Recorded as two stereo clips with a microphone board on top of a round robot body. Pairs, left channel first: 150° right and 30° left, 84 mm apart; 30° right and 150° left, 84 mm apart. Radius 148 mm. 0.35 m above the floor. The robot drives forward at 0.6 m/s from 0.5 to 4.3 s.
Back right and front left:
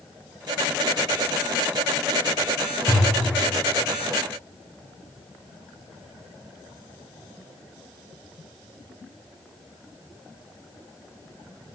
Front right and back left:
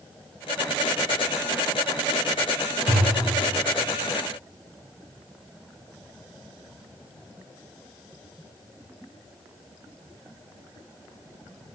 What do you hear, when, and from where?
2.9 s a thud: 145° left, 3 m